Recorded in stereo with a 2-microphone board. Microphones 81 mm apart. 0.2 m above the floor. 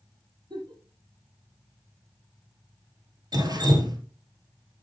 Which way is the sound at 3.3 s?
55° right (ahead or behind).